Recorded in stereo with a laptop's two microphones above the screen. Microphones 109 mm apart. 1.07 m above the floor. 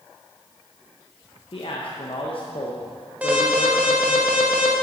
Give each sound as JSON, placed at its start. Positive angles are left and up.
{"t": 1.5, "sound": "a man speaking", "side_deg": 55, "distance_m": 0.6}
{"t": 3.2, "sound": "an alarm", "side_deg": -15, "distance_m": 0.9}